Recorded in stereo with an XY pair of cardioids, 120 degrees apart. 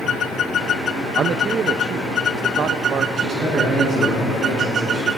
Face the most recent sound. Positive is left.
turn(degrees=-50)